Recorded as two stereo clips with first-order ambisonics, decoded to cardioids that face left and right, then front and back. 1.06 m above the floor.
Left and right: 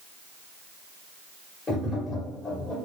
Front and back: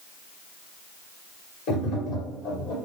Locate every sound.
1.7 s tapping: 25° left, 1.6 m